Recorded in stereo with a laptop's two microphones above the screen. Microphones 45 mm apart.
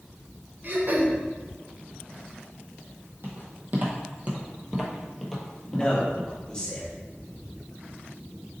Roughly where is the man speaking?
Centre.